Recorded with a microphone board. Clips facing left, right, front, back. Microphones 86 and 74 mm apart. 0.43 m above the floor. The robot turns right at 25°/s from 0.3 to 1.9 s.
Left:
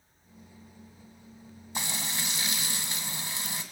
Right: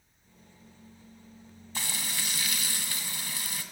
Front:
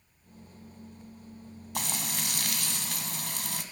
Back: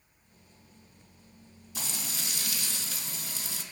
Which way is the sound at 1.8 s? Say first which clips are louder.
Left 2 dB, front 5 dB; 20° left.